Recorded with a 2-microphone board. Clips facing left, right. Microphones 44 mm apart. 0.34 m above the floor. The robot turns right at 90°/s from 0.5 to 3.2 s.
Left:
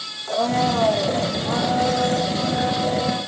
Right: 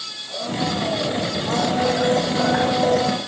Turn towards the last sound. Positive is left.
turn(degrees=-50)